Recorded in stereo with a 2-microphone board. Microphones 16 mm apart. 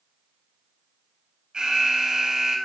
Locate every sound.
1.5 s an alarm: 55° right (ahead or behind), 4.5 m